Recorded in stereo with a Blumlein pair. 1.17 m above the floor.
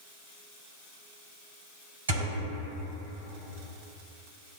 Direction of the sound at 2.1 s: 70° right.